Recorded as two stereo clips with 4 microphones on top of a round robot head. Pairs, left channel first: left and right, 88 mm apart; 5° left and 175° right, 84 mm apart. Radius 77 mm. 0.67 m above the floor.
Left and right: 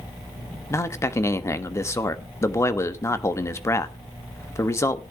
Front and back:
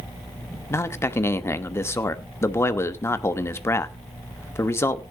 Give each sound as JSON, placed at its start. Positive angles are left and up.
{"t": 0.7, "sound": "a man speaking", "azimuth_deg": 50, "distance_m": 1.3}